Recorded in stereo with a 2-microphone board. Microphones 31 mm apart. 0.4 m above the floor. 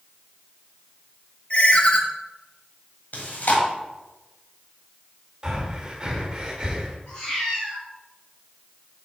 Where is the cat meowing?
25° left (ahead or behind), 3 m.